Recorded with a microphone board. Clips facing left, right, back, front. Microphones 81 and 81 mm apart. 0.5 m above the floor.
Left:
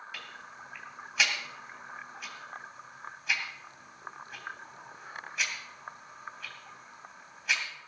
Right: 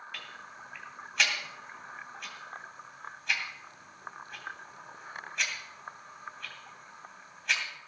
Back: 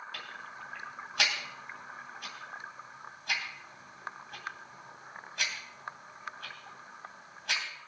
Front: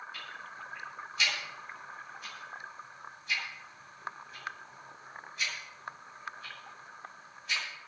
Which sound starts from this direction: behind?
Ticking, at 0.1 s.